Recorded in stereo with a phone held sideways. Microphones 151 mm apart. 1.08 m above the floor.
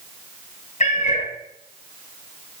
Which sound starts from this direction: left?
A cat meowing, at 0.8 s.